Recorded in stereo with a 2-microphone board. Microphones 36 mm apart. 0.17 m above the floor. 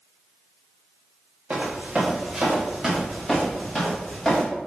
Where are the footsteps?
35° right (ahead or behind), 1.7 m; by 4.5 s 10° left (ahead or behind), 2.5 m.